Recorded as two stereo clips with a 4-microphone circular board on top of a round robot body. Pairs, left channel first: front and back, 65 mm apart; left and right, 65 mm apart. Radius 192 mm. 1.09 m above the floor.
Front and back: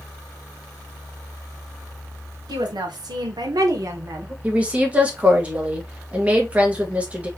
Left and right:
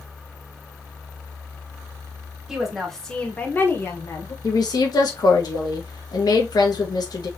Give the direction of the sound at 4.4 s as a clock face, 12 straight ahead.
8 o'clock.